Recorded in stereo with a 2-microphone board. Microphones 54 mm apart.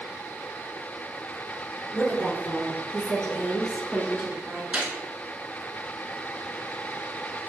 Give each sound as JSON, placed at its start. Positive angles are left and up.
{"t": 1.9, "sound": "a woman speaking", "side_deg": 20, "distance_m": 1.7}
{"t": 4.7, "sound": "a gunshot", "side_deg": -25, "distance_m": 0.7}